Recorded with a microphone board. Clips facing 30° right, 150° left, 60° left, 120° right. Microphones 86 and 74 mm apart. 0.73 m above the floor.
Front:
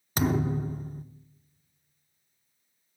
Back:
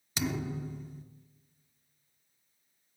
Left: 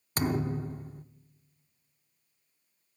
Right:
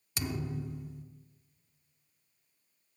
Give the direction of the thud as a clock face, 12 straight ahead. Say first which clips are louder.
Front 8 dB, left 7 dB; 12 o'clock.